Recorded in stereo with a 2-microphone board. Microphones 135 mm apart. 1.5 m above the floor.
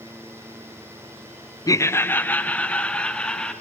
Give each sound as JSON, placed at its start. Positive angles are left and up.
{"t": 1.7, "sound": "laughter", "side_deg": 25, "distance_m": 0.6}